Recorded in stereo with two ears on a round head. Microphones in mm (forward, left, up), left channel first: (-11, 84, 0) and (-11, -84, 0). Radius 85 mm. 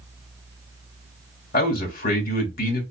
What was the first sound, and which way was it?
A man speaking, 55° left (ahead or behind).